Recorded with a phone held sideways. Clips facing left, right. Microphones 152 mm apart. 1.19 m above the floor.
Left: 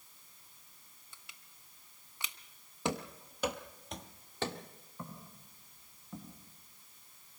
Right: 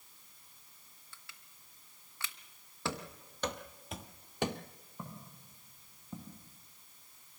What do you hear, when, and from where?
1.1 s crushing: 20° left (ahead or behind), 1.1 m
2.9 s running footsteps: 15° left (ahead or behind), 1.5 m; by 4.6 s 20° right (ahead or behind), 1.3 m
5.0 s footsteps: 15° right (ahead or behind), 6.5 m; by 6.4 s 20° right (ahead or behind), 5 m